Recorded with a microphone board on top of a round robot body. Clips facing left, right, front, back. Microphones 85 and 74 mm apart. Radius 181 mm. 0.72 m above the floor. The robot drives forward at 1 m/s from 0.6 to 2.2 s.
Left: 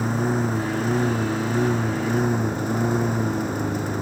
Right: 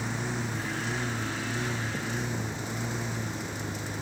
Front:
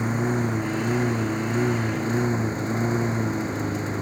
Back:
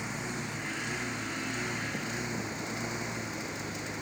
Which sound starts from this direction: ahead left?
A lawn mower, at 0.0 s.